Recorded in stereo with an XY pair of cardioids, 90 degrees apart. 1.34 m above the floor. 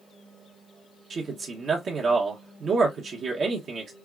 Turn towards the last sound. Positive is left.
turn(degrees=-65)